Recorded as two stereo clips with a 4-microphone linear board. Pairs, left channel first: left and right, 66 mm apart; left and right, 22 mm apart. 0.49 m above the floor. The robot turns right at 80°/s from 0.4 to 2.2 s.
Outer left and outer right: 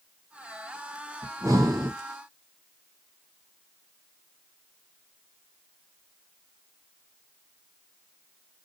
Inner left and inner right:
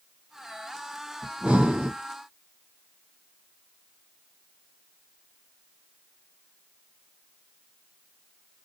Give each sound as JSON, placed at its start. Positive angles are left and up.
{"t": 1.2, "sound": "breathing", "azimuth_deg": -135, "distance_m": 1.0}